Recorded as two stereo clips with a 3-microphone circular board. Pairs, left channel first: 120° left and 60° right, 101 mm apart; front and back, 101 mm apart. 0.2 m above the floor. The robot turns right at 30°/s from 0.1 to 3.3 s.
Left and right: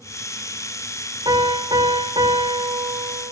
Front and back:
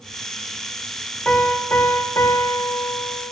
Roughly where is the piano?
Ahead right.